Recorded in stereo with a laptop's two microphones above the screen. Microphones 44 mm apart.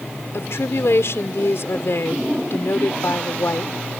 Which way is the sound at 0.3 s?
65° left (ahead or behind).